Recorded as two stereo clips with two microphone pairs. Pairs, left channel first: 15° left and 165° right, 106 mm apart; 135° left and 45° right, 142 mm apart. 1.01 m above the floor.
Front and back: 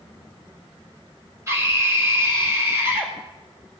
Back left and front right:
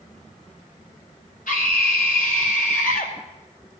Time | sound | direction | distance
1.5 | a scream | 135° left | 4 m